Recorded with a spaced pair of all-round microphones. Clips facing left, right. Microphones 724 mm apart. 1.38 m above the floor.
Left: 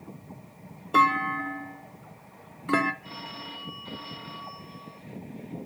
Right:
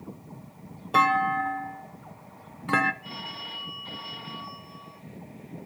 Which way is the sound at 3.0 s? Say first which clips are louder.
Even; 30° right (ahead or behind).